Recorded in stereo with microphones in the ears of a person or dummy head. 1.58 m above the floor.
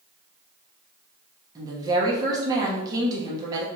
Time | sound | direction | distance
1.6 | a woman speaking | 25° right (ahead or behind) | 1.2 m